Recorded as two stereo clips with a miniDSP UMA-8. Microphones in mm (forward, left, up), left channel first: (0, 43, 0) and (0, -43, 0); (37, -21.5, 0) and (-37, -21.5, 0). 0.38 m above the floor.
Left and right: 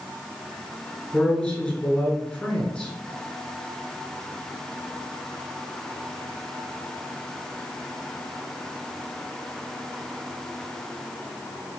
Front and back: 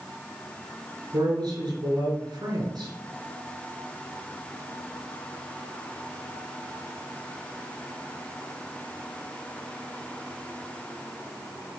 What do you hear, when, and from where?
1.1 s a man speaking: 165° left, 4 m